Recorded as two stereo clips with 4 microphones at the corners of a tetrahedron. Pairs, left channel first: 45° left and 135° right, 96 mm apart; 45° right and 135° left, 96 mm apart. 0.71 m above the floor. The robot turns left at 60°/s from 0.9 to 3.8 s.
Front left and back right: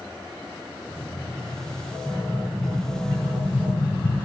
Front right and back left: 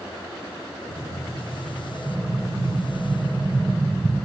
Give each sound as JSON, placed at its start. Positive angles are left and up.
{"t": 2.1, "sound": "an explosion", "azimuth_deg": -170, "distance_m": 0.7}